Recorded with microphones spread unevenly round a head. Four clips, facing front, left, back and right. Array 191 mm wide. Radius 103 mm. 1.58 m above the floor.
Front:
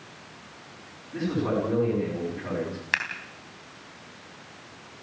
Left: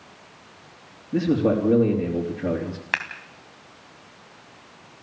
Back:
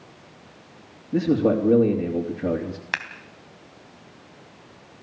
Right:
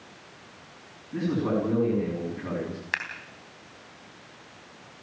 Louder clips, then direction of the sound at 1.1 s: Left 6 dB, back 7 dB; 145° left.